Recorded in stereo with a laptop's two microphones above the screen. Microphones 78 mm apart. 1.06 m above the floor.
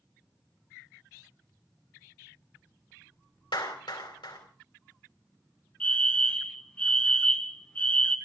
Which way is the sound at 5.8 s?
15° left (ahead or behind).